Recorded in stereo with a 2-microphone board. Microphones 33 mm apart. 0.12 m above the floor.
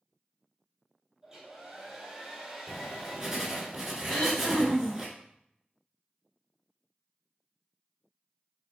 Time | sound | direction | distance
1.2 | a hair dryer | 15° right (ahead or behind) | 1.6 m
2.7 | writing | 10° right (ahead or behind) | 1.1 m
4.1 | throat clearing | 35° left (ahead or behind) | 1.7 m